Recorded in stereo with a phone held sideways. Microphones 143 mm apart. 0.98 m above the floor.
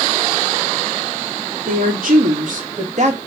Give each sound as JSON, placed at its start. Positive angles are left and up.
{"t": 1.7, "sound": "a woman speaking", "side_deg": -70, "distance_m": 1.5}